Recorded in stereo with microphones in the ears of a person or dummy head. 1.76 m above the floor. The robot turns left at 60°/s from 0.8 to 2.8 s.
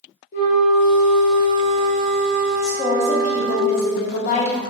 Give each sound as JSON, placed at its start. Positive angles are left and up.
{"t": 0.3, "sound": "a flute", "azimuth_deg": 100, "distance_m": 0.7}
{"t": 2.6, "sound": "a woman speaking", "side_deg": 45, "distance_m": 0.9}